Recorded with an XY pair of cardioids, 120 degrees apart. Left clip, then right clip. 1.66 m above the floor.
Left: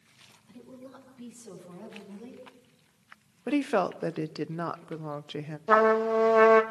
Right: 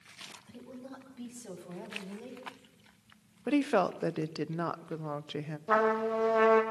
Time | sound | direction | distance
0.5 | a woman speaking | 50° right | 9.5 m
3.5 | a woman speaking | 5° left | 0.9 m
5.7 | a trumpet | 30° left | 2.5 m